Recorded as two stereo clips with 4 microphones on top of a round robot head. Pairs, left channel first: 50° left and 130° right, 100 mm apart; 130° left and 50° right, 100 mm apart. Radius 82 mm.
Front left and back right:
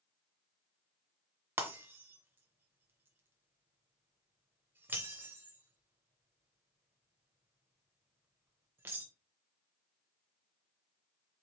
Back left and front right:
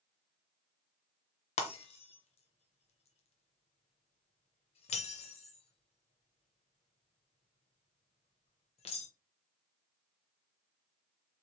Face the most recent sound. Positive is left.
turn(degrees=160)